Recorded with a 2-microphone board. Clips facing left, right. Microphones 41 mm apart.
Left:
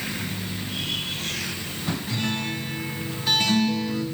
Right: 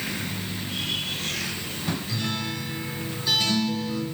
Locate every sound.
2.1 s a guitar: 45° left (ahead or behind), 2.5 m